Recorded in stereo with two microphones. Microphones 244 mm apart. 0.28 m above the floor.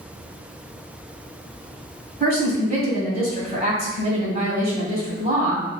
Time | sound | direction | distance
2.2 | a woman speaking | 35° right (ahead or behind) | 1.5 m